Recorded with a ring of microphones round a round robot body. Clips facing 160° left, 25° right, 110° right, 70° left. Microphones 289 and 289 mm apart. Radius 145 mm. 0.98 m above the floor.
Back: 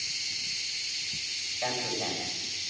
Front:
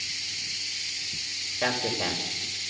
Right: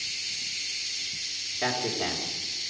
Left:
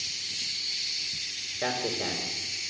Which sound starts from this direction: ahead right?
A man speaking, at 1.6 s.